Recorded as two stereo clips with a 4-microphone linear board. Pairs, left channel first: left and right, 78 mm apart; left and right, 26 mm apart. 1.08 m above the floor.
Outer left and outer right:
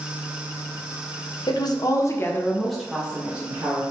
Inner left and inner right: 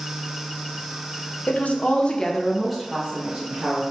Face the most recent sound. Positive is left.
turn(degrees=-30)  # may be behind; listen again after turning